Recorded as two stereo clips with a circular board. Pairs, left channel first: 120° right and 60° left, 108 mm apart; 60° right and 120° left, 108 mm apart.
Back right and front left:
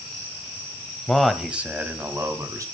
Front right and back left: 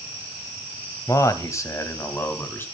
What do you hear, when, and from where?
1.1 s a man speaking: 40° right, 1.1 m; by 2.6 s 5° left, 1.7 m